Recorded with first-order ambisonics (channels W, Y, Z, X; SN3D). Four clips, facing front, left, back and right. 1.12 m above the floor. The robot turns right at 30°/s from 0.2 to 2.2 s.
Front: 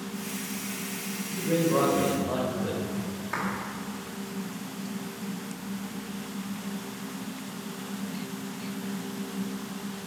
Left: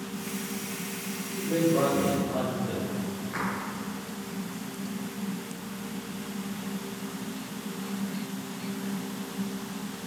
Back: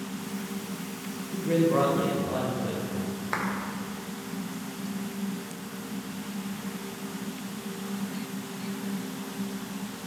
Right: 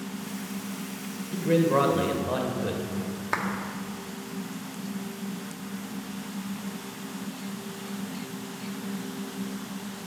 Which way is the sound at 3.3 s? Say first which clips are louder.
Right 6 dB, back 1 dB; 115° right.